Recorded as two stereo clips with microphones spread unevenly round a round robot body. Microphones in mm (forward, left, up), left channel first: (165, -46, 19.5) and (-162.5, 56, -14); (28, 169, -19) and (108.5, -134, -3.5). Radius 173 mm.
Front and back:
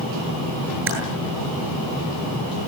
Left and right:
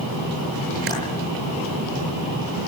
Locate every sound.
0.9 s typing on a keyboard: 140° right, 10 m